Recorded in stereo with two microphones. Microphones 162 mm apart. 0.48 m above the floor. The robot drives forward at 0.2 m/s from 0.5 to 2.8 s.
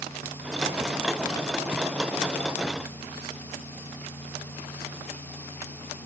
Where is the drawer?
I don't hear a drawer.